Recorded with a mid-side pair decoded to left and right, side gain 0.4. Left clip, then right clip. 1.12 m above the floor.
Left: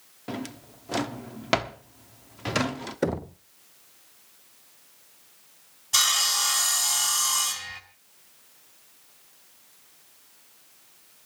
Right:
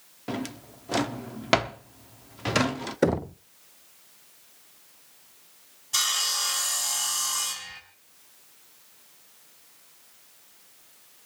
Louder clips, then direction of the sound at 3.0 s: Right 4 dB; 25° right.